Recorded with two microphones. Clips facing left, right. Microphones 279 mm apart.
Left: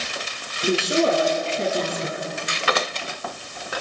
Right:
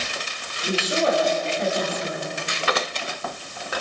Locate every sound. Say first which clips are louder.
0.6 s a woman speaking: left 3 dB; 35° left (ahead or behind), 8 m